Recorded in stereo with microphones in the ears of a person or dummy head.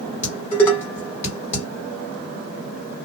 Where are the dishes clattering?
15° left (ahead or behind), 1.6 m.